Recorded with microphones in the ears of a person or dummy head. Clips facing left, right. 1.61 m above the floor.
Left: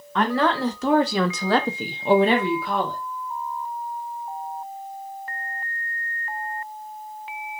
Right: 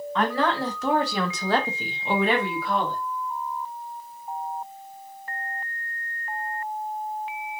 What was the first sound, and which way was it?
A woman speaking, 50° left (ahead or behind).